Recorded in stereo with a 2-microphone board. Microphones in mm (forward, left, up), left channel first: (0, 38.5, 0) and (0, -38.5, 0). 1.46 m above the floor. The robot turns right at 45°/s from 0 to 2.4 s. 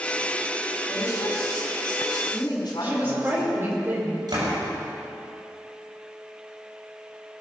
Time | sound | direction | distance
0.9 | a woman speaking | 40° left | 4 m
2.8 | a woman speaking | 30° right (ahead or behind) | 4.5 m
4.3 | a door slam | 70° right (ahead or behind) | 6.5 m